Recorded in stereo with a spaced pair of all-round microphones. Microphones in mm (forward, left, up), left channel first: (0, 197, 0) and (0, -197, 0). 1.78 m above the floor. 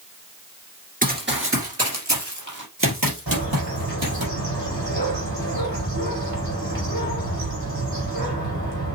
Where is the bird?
70° right (ahead or behind), 4 m.